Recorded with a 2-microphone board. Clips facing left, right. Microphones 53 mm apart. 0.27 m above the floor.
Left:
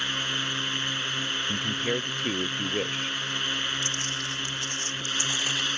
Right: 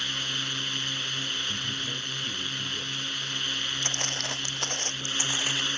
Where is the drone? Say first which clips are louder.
Left 3 dB; 25° left (ahead or behind).